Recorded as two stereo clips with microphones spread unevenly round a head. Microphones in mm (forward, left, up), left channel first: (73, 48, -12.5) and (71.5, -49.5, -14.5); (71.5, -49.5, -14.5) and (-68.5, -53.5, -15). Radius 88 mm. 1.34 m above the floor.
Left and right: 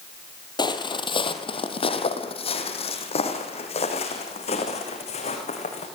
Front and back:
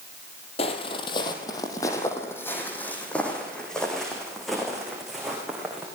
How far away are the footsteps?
About 3 m.